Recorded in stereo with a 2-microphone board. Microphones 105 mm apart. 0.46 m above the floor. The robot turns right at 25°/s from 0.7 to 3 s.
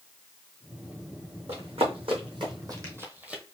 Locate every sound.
1.5 s running footsteps: 75° right (ahead or behind), 1.6 m; by 3.4 s 10° right (ahead or behind), 0.8 m